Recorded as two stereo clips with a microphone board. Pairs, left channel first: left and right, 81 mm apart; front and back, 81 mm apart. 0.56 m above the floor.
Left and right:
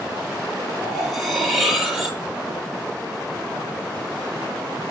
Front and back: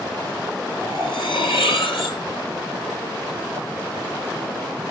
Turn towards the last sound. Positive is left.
turn(degrees=0)